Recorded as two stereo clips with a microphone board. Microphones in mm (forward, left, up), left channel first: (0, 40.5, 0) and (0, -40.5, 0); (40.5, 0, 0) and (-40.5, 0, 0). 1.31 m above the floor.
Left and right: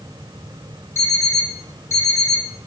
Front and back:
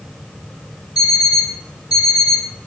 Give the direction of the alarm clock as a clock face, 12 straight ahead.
11 o'clock.